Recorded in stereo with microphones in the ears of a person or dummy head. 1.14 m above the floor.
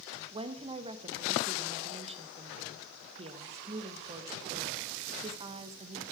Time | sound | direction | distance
0.3 | a woman speaking | 30° right (ahead or behind) | 0.8 m